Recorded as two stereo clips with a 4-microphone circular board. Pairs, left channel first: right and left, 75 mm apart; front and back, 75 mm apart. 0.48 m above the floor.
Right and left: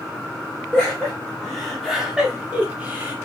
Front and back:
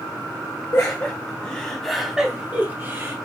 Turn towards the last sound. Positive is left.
turn(degrees=150)